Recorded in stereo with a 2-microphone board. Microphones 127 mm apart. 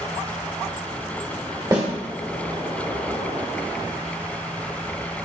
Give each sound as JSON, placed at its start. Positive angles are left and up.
{"t": 1.7, "sound": "a snare drum", "side_deg": -25, "distance_m": 1.0}